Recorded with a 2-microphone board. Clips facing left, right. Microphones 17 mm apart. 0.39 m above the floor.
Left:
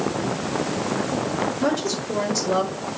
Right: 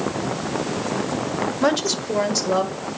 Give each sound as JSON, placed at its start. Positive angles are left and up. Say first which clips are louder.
{"t": 1.6, "sound": "a woman speaking", "louder": "right 3 dB", "side_deg": -45, "distance_m": 1.2}